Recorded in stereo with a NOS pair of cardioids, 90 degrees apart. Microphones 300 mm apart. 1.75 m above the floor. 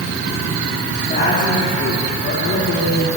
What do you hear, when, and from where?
0.9 s a woman speaking: 30° left, 3 m; by 3.1 s 60° left, 3 m